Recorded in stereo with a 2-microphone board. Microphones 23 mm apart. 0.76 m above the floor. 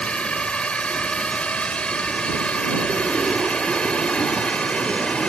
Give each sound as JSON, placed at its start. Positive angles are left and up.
{"t": 0.0, "sound": "a drone", "side_deg": 60}